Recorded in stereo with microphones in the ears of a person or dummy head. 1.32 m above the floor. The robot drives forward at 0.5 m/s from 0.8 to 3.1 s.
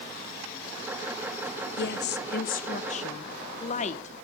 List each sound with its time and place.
1.8 s a woman speaking: 65° left (ahead or behind), 0.8 m; by 4.1 s 40° left (ahead or behind), 1.2 m